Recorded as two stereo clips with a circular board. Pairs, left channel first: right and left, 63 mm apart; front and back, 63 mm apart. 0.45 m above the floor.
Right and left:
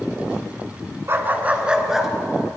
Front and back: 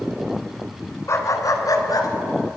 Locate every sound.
1.1 s a dog barking: 40° left, 1.7 m; by 2.1 s 5° left, 2.5 m